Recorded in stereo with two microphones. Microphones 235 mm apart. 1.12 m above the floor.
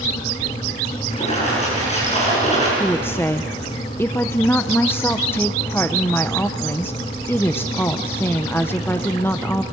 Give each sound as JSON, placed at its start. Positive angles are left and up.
{"t": 1.1, "sound": "a splash", "side_deg": 30, "distance_m": 7.5}
{"t": 2.8, "sound": "a woman speaking", "side_deg": 10, "distance_m": 0.7}